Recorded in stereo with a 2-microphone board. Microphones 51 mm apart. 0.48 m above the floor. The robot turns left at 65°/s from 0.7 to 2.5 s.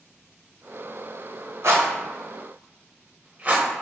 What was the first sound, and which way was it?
A rattle, 70° right (ahead or behind).